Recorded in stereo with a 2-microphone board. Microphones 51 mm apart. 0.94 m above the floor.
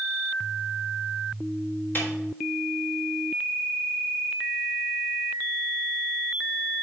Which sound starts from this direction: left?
A snare drum, at 1.9 s.